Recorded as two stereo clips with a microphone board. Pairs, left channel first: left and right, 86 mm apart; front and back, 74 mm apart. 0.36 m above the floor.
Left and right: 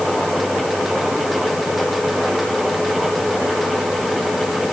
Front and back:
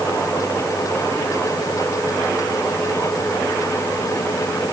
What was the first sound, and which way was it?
Only background noise.